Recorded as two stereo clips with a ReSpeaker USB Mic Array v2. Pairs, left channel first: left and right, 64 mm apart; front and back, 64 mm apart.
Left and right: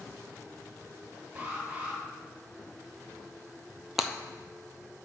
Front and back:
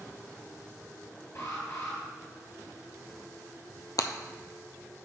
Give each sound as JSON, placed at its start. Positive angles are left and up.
{"t": 1.4, "sound": "an alarm", "azimuth_deg": -30, "distance_m": 3.5}
{"t": 4.0, "sound": "breaking glass", "azimuth_deg": -5, "distance_m": 0.7}